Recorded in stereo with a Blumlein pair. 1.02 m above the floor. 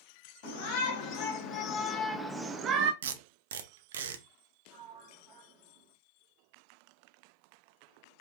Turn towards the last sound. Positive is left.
turn(degrees=-25)